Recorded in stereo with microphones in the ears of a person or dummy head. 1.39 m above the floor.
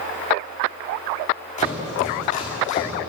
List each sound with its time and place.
1.6 s chopping: 35° left (ahead or behind), 2.5 m